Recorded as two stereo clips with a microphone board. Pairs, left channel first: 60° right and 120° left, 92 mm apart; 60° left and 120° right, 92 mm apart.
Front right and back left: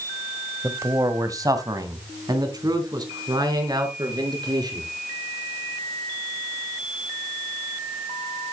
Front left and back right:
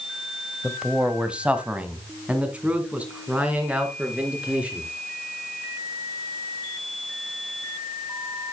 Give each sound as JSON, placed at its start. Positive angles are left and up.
{"t": 0.6, "sound": "a man speaking", "azimuth_deg": 165, "distance_m": 1.2}